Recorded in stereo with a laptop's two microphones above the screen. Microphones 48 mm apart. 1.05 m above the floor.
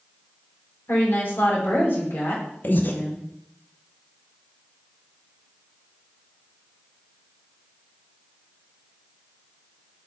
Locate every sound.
0.9 s a woman speaking: 55° left (ahead or behind), 2.5 m
2.6 s breathing: 40° left (ahead or behind), 0.7 m